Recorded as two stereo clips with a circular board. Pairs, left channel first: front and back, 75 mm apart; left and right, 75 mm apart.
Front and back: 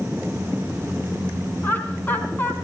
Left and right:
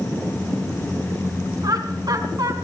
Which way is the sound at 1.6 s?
65° right.